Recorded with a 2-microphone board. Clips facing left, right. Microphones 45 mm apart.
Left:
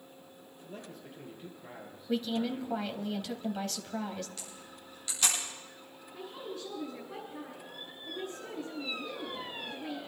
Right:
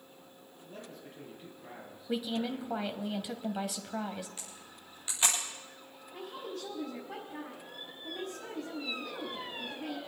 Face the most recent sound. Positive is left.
turn(degrees=-80)